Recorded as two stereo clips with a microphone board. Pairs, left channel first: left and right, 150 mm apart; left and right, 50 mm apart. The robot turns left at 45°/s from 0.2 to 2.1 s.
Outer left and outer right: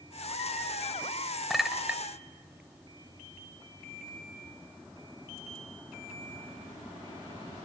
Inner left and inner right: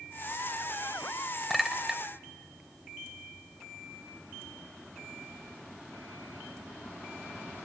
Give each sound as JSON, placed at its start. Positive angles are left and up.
{"t": 1.5, "sound": "a clink", "side_deg": 0, "distance_m": 0.8}